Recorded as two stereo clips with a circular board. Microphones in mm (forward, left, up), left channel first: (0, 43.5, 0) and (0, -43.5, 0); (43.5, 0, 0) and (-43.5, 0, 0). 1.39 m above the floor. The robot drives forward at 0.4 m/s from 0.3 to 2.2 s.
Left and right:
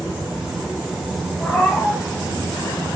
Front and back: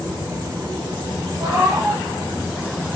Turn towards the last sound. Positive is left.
turn(degrees=160)